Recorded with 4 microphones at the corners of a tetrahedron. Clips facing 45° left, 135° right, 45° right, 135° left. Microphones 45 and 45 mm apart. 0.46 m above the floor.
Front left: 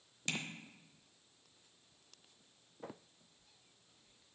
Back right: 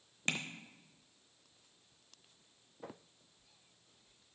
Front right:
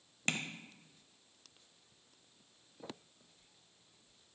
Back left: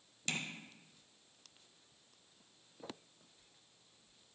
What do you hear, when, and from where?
0.3 s tapping: 85° right, 0.8 m